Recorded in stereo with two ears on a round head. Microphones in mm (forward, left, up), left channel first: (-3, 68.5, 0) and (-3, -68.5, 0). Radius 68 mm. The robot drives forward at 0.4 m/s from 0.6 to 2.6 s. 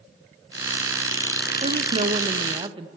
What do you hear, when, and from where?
1.6 s a woman speaking: 50° right (ahead or behind), 0.6 m; by 2.9 s 30° right (ahead or behind), 0.9 m